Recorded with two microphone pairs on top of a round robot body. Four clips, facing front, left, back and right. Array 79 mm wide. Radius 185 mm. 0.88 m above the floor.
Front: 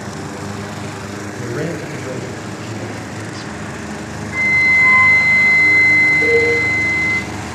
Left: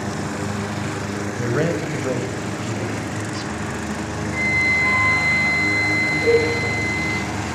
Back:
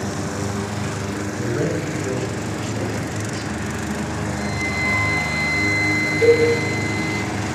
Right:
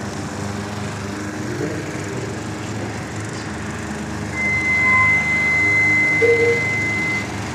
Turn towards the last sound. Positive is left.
turn(degrees=-115)